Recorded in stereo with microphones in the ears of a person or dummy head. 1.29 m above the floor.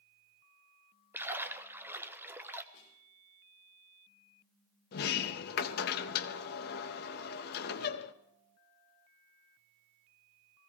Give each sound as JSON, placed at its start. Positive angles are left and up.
{"t": 1.1, "sound": "a splash", "side_deg": -10, "distance_m": 0.8}
{"t": 2.7, "sound": "a snare drum", "side_deg": 35, "distance_m": 4.0}
{"t": 4.9, "sound": "a sliding door", "side_deg": 50, "distance_m": 0.8}